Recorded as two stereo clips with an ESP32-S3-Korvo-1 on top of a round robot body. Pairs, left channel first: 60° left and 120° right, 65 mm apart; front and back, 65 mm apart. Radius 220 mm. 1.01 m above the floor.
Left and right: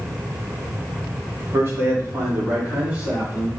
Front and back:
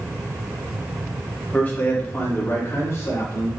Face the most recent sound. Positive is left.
turn(degrees=-50)